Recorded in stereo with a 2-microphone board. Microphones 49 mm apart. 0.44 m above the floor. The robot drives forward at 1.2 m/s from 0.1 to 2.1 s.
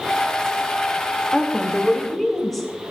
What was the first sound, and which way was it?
A woman speaking, 5° left (ahead or behind).